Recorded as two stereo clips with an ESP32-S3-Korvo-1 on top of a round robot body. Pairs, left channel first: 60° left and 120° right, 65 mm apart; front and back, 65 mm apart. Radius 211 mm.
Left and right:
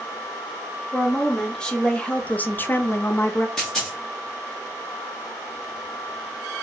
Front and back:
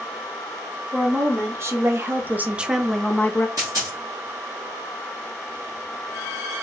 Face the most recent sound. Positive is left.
turn(degrees=140)